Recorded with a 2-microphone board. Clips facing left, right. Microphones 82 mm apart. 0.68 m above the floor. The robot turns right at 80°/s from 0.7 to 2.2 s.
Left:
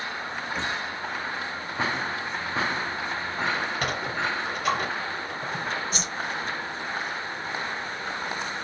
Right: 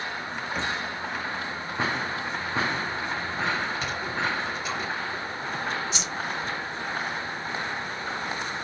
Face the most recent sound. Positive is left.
turn(degrees=45)  # may be behind; listen again after turning